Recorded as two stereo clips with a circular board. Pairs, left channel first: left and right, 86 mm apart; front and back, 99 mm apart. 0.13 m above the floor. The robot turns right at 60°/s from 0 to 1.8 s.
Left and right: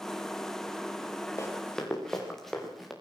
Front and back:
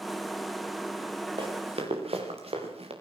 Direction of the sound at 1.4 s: 145° left.